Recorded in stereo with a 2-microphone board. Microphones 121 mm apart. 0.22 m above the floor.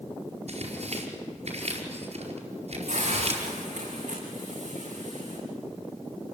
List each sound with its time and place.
0.5 s tearing paper: 65° right (ahead or behind), 4.5 m
2.9 s a hiss: 80° right, 8.5 m